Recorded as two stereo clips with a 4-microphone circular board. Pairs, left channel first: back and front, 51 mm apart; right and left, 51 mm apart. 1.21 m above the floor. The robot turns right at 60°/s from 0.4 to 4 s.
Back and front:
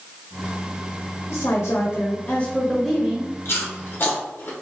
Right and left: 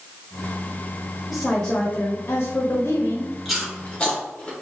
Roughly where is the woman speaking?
Behind.